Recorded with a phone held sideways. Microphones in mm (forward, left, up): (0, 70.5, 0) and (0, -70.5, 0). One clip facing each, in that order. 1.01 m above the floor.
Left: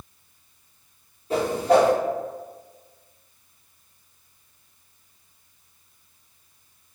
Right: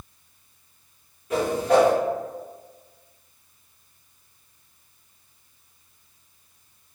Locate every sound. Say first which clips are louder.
1.3 s a whoosh: left 1 dB; 30° left (ahead or behind), 1.1 m